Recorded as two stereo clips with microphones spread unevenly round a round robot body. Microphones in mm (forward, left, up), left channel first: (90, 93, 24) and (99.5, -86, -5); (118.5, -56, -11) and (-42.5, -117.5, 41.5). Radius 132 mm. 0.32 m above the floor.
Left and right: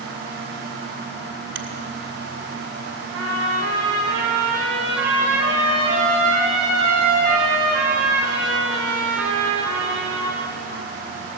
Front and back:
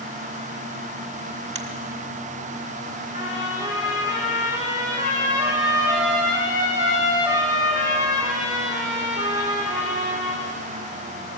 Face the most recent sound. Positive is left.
turn(degrees=125)